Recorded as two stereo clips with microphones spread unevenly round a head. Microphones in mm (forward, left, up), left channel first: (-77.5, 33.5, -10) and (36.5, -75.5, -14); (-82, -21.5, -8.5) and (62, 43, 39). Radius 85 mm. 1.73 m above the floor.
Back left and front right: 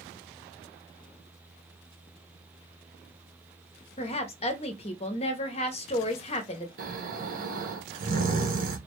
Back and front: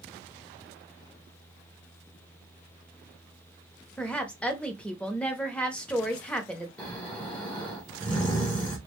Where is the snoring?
65° right, 1.1 m.